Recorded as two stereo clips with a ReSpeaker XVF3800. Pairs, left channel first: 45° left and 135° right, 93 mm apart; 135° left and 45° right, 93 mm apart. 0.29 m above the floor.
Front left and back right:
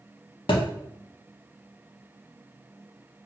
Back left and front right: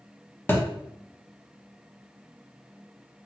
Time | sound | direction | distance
0.5 | a thud | 70° left | 0.7 m